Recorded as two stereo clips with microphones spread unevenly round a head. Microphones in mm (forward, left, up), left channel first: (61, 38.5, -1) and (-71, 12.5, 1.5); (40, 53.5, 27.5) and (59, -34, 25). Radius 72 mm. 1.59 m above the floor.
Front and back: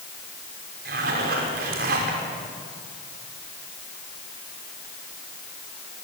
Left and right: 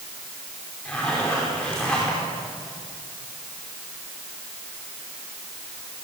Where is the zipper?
175° right, 5 m.